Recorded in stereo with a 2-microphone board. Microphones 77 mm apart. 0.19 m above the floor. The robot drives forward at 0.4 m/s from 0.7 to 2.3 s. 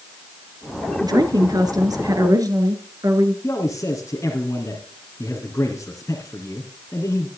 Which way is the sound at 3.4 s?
40° left (ahead or behind).